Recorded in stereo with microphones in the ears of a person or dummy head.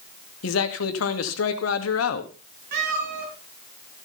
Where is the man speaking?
80° left, 2 m.